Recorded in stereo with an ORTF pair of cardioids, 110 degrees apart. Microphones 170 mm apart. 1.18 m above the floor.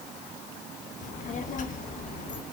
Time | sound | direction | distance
1.0 | a child speaking | 50° left | 3 m